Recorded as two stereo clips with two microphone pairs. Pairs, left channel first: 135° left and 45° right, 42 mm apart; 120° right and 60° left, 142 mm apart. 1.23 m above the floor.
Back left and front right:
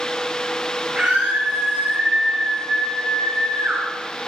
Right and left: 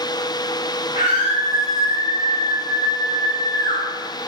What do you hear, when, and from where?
0.9 s a scream: 105° right, 5 m; by 3.8 s 75° right, 5 m